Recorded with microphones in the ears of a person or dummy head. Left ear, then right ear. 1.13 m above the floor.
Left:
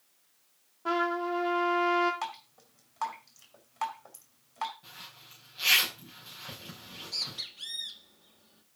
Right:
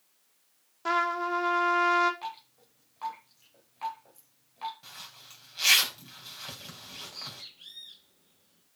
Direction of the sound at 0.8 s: 65° right (ahead or behind).